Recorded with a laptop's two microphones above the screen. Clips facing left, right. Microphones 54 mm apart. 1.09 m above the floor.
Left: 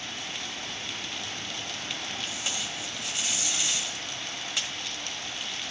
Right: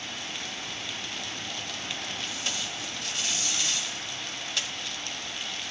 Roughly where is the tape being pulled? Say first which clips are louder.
Even; centre.